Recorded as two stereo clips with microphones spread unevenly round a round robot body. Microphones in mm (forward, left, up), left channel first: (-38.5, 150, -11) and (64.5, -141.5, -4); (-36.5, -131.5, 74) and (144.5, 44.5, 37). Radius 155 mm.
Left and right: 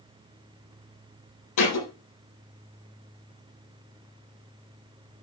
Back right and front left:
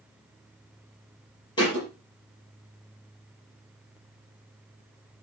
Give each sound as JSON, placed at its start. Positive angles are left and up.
{"t": 1.6, "sound": "a thud", "azimuth_deg": 150, "distance_m": 5.0}